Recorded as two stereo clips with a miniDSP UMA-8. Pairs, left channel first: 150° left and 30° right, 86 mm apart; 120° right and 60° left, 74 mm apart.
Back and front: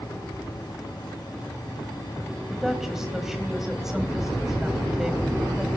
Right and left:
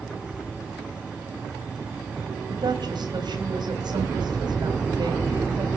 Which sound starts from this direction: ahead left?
A woman speaking, at 2.5 s.